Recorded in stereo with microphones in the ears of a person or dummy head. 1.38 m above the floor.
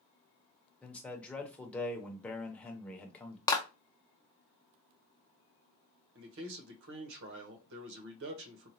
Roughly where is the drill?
I don't hear a drill.